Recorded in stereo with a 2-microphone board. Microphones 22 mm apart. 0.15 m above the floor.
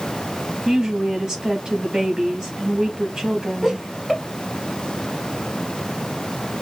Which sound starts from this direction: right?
A woman speaking, at 0.7 s.